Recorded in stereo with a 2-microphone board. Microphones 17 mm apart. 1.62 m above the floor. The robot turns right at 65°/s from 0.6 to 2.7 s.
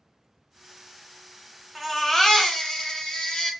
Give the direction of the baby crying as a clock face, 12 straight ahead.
12 o'clock.